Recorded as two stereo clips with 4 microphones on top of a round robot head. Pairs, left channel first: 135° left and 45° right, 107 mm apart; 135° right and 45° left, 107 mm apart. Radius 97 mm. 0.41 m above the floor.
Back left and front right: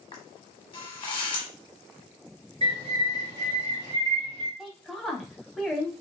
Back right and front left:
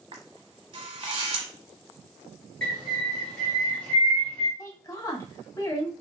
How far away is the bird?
About 1.5 m.